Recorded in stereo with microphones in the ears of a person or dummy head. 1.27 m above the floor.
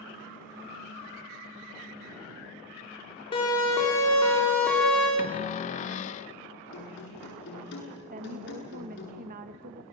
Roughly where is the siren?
Left.